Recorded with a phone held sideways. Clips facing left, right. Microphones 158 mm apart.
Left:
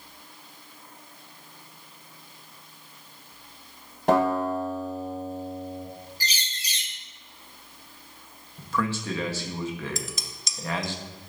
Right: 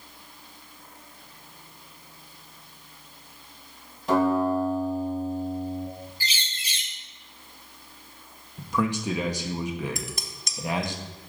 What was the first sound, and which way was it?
A guitar, 65° left (ahead or behind).